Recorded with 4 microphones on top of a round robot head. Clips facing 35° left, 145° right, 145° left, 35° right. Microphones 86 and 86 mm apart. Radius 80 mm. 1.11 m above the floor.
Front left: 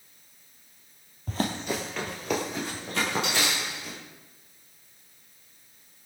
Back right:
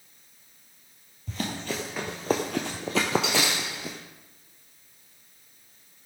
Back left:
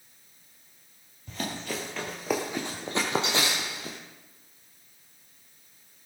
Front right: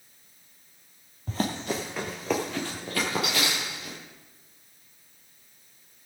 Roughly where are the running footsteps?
Ahead.